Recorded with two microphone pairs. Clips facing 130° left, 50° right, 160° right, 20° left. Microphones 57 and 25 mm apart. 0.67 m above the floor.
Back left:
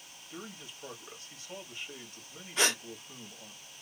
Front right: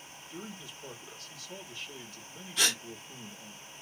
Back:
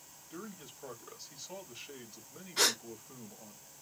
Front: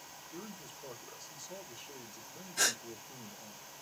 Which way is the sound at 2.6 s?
175° left.